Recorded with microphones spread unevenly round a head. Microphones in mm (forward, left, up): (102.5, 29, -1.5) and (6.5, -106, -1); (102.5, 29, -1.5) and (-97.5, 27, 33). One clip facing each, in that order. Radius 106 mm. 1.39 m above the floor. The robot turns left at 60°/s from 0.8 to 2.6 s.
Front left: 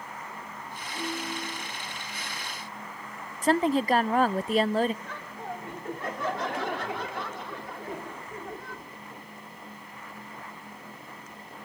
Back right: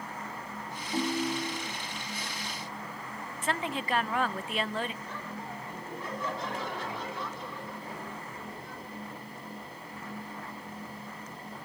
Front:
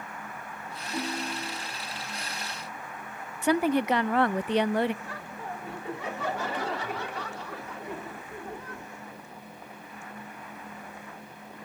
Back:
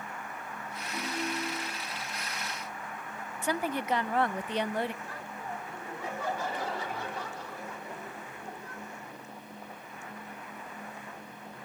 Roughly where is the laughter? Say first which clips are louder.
Front left 2 dB, front 2 dB; ahead left.